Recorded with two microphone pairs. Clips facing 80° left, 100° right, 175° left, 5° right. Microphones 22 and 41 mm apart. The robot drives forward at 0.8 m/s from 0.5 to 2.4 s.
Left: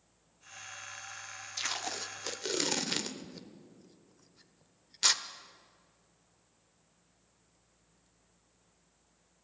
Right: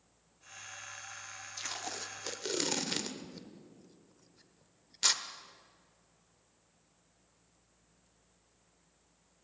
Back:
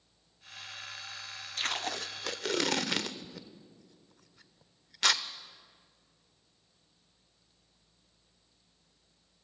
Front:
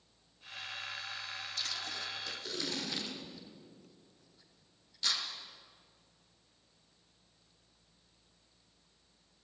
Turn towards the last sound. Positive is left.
turn(degrees=160)